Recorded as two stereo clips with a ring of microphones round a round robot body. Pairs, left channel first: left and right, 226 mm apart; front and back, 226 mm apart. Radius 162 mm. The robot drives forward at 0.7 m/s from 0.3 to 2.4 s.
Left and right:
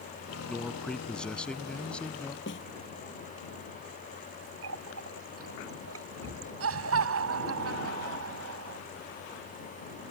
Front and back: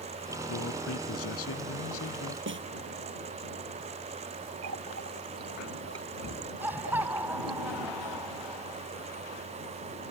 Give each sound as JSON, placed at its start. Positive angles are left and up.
{"t": 0.5, "sound": "a man speaking", "azimuth_deg": 5}
{"t": 2.5, "sound": "a snare drum", "azimuth_deg": 145}
{"t": 4.6, "sound": "a running tap", "azimuth_deg": -140}
{"t": 6.6, "sound": "laughter", "azimuth_deg": -95}